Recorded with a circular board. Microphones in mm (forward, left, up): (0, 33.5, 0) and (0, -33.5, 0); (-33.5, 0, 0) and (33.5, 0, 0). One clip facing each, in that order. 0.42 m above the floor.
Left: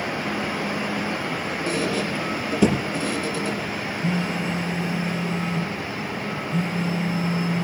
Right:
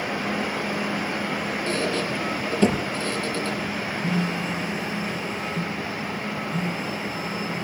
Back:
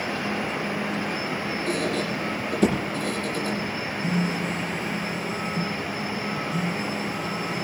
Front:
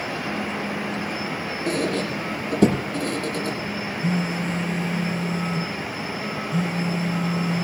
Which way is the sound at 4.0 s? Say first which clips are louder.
Left 1 dB, front 1 dB; 25° left.